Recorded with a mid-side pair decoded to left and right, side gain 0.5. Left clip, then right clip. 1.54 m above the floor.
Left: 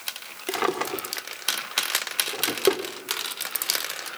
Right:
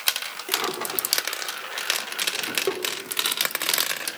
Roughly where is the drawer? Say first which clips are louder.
Left 2 dB; ahead left.